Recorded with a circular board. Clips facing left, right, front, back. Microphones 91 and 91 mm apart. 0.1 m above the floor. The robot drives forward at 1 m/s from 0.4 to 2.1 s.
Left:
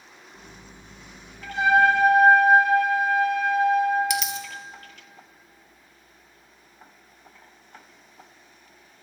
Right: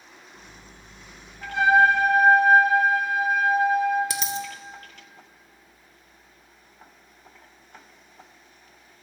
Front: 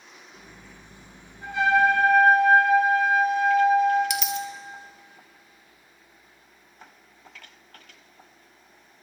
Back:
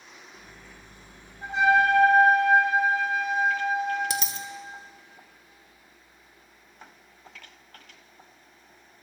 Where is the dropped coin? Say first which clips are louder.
Left 2 dB, front 4 dB; 135° right, 0.6 m.